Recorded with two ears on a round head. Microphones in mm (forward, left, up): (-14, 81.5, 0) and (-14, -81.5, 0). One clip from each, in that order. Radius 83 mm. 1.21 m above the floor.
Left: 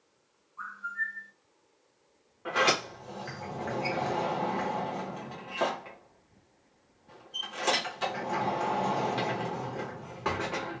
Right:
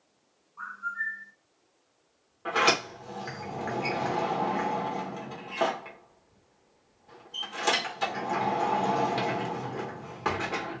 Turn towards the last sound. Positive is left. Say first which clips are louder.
# right 2 dB
turn(degrees=-15)  # may be behind; listen again after turning